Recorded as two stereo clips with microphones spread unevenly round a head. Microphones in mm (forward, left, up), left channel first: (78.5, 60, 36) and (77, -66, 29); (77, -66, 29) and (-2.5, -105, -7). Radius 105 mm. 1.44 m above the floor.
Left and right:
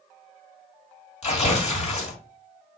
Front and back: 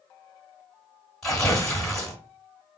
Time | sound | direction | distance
1.2 | tearing paper | 90° left | 1.7 m